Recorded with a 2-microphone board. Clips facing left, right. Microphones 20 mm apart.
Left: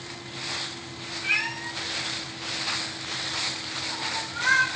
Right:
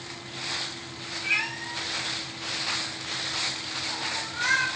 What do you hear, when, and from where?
1.2 s a cat meowing: 25° left (ahead or behind), 0.7 m; by 4.7 s 5° left (ahead or behind), 1.6 m